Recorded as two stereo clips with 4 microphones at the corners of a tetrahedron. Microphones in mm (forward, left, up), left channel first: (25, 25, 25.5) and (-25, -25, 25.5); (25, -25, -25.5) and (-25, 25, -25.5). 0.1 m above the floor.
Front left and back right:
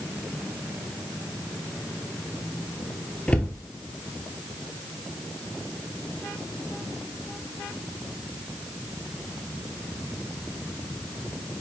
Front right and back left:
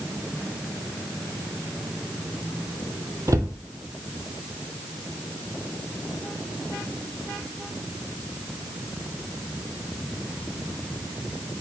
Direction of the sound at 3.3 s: 115° left.